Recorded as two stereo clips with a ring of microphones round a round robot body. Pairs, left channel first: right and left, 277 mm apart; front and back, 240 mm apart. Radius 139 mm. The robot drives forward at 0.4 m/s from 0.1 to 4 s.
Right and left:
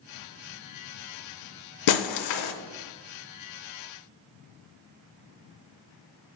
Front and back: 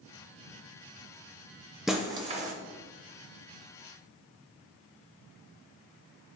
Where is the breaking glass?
90° right, 0.5 m; by 2.5 s 120° right, 0.6 m.